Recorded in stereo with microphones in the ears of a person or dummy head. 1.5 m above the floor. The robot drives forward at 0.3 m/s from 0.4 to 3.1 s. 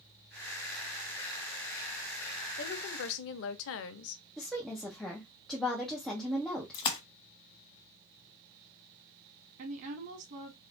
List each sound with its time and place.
2.6 s a woman speaking: 60° left (ahead or behind), 0.7 m; by 4.2 s 70° left (ahead or behind), 0.6 m
4.4 s a woman speaking: 5° left (ahead or behind), 0.8 m
6.7 s a splash: 25° left (ahead or behind), 0.8 m
9.6 s a woman speaking: 60° right (ahead or behind), 0.8 m